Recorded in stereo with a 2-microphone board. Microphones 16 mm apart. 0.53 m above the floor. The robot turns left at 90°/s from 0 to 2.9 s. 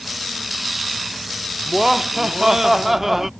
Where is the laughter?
30° right; by 3.3 s 140° right.